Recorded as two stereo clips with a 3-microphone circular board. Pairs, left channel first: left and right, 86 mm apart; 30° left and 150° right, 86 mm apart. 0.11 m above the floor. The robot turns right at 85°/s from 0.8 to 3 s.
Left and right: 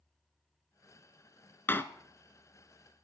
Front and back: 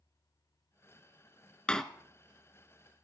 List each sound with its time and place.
1.7 s a door slam: 90° left, 0.8 m; by 1.8 s 105° left, 0.8 m